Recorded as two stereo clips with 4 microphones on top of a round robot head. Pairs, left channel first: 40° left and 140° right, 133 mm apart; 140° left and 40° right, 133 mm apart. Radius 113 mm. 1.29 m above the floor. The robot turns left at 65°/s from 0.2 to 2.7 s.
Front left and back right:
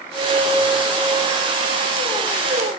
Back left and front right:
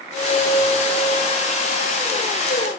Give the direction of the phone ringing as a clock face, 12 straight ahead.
No phone ringing in this recording.